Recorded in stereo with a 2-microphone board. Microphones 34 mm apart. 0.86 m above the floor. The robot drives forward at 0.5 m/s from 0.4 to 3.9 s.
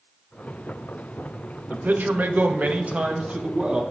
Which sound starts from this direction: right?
A man speaking, at 1.7 s.